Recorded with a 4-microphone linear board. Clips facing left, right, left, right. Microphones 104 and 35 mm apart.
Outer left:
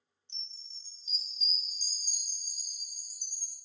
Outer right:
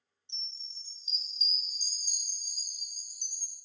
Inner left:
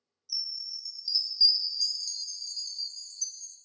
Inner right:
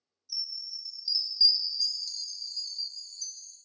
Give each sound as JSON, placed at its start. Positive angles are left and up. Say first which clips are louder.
{"t": 0.3, "sound": "a chime", "louder": "outer right 3 dB, inner left 1 dB", "side_deg": -20, "distance_m": 0.5}